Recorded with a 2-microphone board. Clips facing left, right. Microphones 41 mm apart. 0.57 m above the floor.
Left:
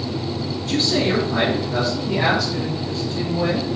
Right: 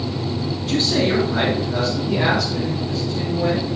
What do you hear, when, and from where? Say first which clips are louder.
0.6 s a man speaking: even; 5° right (ahead or behind), 6 m; by 3.6 s 40° left (ahead or behind), 3.5 m